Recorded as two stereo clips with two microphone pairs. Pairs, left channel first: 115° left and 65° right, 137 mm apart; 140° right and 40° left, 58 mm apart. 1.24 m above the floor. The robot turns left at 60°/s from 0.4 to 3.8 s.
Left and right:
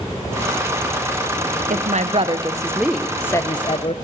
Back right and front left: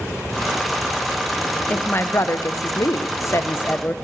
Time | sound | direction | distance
1.7 | a woman speaking | 80° right | 0.6 m